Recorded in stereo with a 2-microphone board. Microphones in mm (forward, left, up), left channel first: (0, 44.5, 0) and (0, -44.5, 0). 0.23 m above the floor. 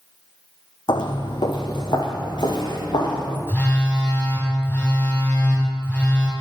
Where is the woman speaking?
No woman speaking in this recording.